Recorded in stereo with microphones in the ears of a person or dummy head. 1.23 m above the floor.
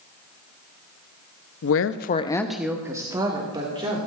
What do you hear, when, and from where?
1.6 s a woman speaking: 65° left (ahead or behind), 0.7 m; by 4.0 s 30° right (ahead or behind), 2.5 m